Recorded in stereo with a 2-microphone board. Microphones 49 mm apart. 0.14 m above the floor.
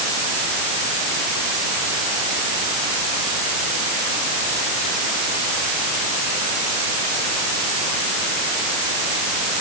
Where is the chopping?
I don't hear chopping.